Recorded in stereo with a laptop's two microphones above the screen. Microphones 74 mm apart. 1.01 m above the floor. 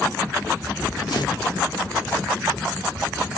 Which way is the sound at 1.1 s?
65° left (ahead or behind).